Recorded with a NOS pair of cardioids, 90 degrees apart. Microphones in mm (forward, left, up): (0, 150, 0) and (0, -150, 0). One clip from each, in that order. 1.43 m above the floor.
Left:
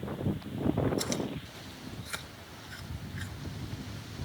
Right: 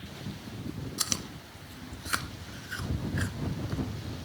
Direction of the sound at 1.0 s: 55° right.